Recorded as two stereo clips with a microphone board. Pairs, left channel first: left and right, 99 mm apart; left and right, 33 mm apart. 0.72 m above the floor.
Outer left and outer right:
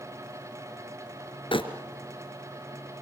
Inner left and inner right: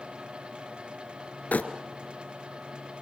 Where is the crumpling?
65° left (ahead or behind), 2 m.